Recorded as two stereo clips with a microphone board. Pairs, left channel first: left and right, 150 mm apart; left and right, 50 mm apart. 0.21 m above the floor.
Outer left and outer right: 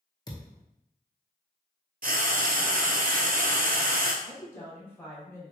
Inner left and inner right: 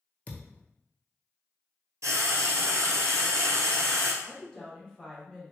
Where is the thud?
25° left (ahead or behind), 0.8 m.